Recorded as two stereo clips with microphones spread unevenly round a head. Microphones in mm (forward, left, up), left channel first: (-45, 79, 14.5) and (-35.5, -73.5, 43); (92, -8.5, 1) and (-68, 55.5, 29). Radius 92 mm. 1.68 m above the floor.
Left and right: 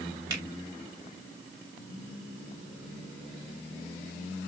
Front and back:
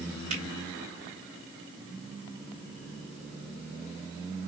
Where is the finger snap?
145° right, 2.5 m.